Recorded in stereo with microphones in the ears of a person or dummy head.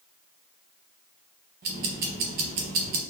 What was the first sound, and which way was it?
Ticking, 55° right (ahead or behind).